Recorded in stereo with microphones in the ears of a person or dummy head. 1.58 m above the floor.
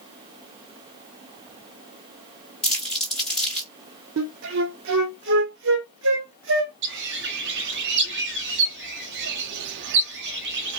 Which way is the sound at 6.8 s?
65° right (ahead or behind).